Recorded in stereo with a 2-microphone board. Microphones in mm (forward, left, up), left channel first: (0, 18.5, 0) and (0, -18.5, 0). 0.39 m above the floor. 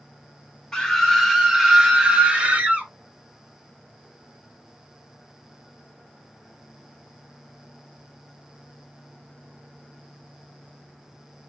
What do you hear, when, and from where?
0.7 s a scream: 15° left (ahead or behind), 1.1 m; by 2.9 s 30° right (ahead or behind), 1.5 m